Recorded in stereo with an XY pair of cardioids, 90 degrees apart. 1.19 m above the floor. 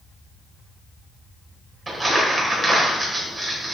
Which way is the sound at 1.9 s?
30° right.